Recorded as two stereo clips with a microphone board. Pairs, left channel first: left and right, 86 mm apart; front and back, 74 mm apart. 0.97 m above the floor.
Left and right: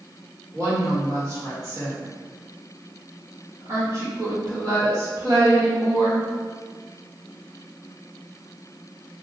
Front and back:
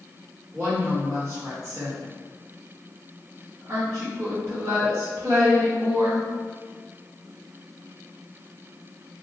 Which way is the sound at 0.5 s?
140° right.